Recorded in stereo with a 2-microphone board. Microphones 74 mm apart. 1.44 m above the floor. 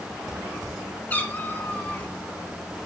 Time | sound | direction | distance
1.1 | a cat meowing | 20° left (ahead or behind) | 1.3 m